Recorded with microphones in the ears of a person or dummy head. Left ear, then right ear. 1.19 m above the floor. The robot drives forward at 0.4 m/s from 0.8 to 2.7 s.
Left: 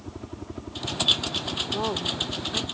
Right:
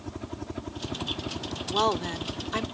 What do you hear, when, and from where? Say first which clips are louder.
0.0 s a helicopter: right 1 dB; 30° right (ahead or behind)
1.7 s a woman speaking: right 5 dB; 55° right (ahead or behind)